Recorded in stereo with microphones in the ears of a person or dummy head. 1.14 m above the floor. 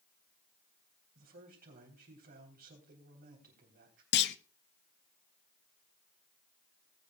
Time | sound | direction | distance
1.1 | a man speaking | 50° right (ahead or behind) | 3.5 m
4.1 | a clunk | 55° left (ahead or behind) | 0.5 m